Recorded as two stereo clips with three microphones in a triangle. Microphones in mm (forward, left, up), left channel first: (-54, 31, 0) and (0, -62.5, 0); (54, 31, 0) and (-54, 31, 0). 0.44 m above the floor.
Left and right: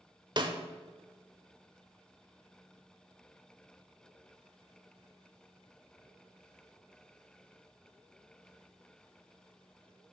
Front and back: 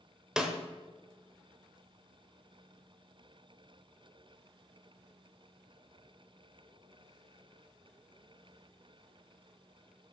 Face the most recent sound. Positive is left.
turn(degrees=-100)